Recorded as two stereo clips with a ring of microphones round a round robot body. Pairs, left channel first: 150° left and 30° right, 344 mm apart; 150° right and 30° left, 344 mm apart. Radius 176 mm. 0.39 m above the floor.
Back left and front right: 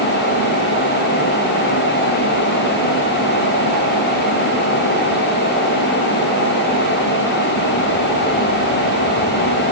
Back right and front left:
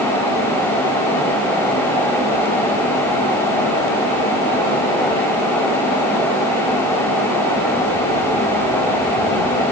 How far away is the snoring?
No snoring in this recording.